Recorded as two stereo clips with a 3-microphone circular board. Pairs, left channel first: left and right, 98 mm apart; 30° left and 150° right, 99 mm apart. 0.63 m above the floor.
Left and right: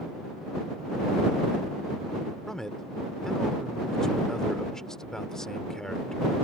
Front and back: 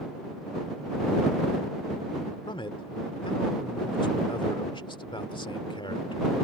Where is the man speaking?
5° left.